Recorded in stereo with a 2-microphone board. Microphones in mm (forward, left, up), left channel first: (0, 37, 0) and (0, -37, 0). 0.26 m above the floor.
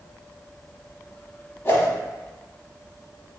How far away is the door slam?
No door slam in this recording.